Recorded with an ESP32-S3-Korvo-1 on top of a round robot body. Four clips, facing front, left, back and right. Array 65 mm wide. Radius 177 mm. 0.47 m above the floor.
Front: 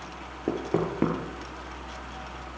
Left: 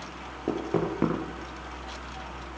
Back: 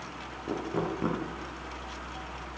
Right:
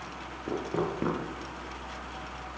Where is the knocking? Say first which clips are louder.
Left 3 dB, front 4 dB; 25° left, 8 m.